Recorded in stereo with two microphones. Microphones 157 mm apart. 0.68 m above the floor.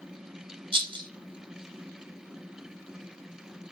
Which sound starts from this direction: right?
A rattle, at 0.7 s.